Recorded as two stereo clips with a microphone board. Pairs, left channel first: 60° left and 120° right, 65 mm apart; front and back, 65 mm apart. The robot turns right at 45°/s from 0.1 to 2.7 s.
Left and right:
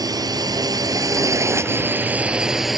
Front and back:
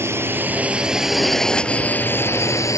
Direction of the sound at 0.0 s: 130° right.